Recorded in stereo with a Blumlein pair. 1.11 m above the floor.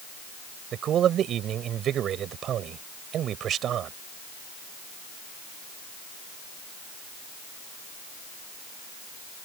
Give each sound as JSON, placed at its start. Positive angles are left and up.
{"t": 0.7, "sound": "a man speaking", "azimuth_deg": -30}